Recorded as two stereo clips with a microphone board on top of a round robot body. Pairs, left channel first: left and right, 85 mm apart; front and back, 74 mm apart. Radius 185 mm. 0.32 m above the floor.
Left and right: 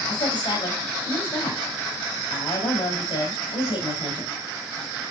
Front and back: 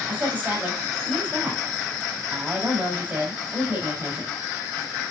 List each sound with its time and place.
0.1 s a woman speaking: 115° left, 4 m